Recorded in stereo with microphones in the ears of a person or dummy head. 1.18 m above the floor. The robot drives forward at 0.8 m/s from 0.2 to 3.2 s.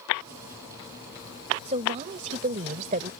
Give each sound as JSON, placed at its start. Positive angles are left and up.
{"t": 1.6, "sound": "a woman speaking", "side_deg": -35}